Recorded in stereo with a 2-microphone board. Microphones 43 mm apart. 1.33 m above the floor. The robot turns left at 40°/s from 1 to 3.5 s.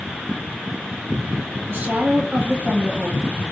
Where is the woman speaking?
115° right, 1.0 m; by 3.3 s straight behind, 1.0 m.